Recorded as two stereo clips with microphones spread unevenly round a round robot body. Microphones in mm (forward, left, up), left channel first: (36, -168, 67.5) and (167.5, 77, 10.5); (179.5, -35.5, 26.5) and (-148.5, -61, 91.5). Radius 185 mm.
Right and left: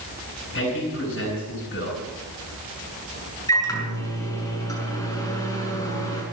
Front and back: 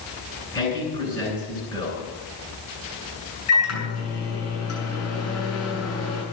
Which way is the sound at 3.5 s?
40° right.